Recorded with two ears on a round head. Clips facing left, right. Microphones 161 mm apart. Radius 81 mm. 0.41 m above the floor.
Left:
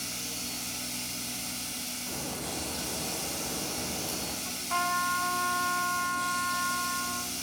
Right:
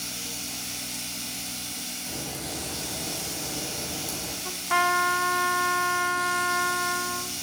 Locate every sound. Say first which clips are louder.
0.0 s running water: right 1 dB; centre (ahead or behind), 3 m
2.1 s a crack: right 1 dB; 15° right (ahead or behind), 3 m
4.5 s a trumpet: right 8 dB; 65° right (ahead or behind), 0.5 m